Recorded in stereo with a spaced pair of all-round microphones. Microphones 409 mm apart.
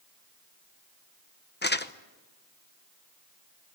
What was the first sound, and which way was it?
Crumpling, 25° left (ahead or behind).